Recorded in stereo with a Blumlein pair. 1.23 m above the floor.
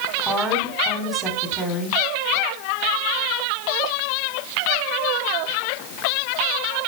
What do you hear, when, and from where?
0.2 s a woman speaking: 5° right, 4 m